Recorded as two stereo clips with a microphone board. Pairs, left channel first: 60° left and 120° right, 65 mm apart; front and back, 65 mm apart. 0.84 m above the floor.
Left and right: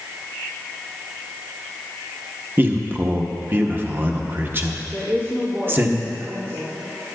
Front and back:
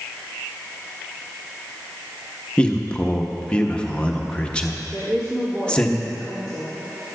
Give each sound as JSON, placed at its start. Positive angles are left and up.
{"t": 2.6, "sound": "a man speaking", "azimuth_deg": -70, "distance_m": 0.9}
{"t": 4.9, "sound": "a woman speaking", "azimuth_deg": -160, "distance_m": 2.5}